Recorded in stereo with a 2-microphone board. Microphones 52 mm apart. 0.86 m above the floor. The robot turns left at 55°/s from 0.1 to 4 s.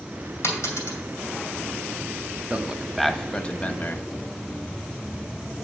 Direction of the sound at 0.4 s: 65° left (ahead or behind).